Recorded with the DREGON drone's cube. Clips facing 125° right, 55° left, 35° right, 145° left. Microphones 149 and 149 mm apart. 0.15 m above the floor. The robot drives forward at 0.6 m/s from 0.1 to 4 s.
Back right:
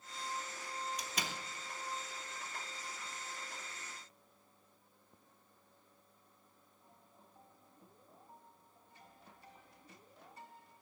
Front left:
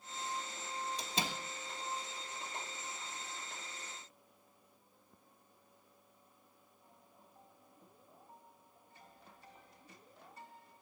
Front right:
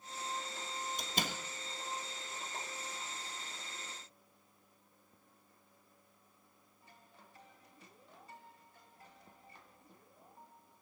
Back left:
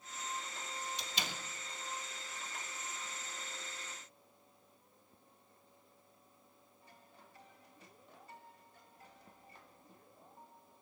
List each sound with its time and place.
1.0 s a door slam: 5° right, 1.7 m